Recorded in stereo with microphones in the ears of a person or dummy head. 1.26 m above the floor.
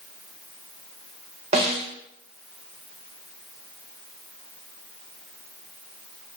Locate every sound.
1.5 s a snare drum: 30° right (ahead or behind), 0.8 m